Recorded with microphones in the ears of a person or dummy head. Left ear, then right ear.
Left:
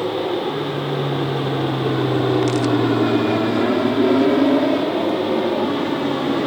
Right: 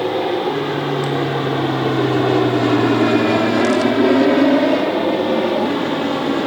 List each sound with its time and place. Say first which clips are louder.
0.0 s an aircraft: right 3 dB; 20° right (ahead or behind); by 6.5 s 5° right (ahead or behind)